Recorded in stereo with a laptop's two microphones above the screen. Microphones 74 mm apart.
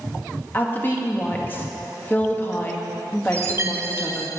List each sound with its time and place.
0.5 s a woman speaking: 25° left (ahead or behind), 1.9 m
3.3 s a chime: 35° right (ahead or behind), 0.9 m